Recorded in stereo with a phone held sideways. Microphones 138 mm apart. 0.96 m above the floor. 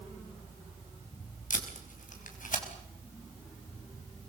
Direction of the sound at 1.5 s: 70° left (ahead or behind).